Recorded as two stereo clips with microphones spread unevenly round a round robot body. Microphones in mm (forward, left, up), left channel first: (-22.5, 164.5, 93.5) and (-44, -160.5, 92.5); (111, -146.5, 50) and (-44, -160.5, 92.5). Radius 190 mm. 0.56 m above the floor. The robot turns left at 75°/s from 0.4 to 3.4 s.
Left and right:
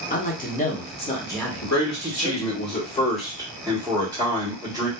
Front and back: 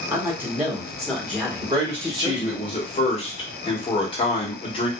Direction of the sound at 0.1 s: 90° left.